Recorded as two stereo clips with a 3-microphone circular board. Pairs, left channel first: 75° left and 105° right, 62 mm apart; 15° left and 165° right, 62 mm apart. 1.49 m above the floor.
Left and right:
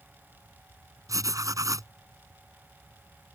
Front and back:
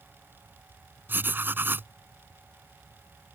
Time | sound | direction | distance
1.1 | writing | 110° right | ?